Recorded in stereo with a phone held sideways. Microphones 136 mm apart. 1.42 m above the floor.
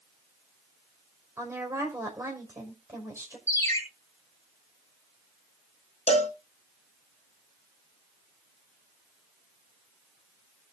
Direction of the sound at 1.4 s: 20° right (ahead or behind).